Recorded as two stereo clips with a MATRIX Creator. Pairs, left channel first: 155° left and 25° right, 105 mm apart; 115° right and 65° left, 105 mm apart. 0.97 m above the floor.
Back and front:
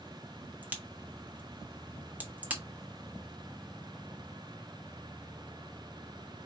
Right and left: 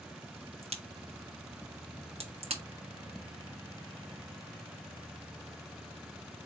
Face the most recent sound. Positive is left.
turn(degrees=50)